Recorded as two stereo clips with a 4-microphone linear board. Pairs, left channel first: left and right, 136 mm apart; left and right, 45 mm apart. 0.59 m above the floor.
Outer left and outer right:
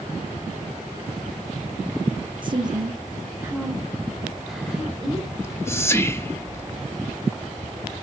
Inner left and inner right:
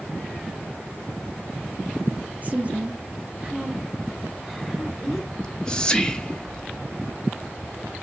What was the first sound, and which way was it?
A woman speaking, 35° right (ahead or behind).